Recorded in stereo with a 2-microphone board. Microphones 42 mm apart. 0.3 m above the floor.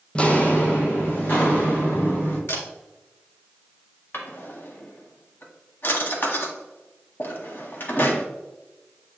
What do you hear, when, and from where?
0.1 s footsteps: 25° left (ahead or behind), 0.8 m; by 2.4 s 50° left (ahead or behind), 4 m
2.5 s a camera shutter: 75° left (ahead or behind), 2 m
4.1 s a drawer: 55° left (ahead or behind), 1.4 m